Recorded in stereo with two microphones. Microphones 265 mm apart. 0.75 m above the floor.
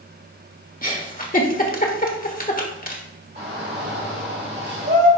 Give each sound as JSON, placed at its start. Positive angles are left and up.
{"t": 0.8, "sound": "a giggle", "side_deg": 35, "distance_m": 1.3}
{"t": 3.4, "sound": "a shout", "side_deg": -45, "distance_m": 3.0}